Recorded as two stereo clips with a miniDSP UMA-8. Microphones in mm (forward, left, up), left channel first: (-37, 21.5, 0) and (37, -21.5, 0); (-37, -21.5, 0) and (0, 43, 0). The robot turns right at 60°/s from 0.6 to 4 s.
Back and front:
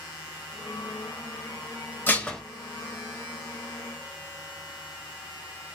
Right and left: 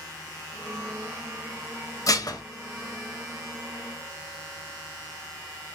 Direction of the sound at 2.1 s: 145° right.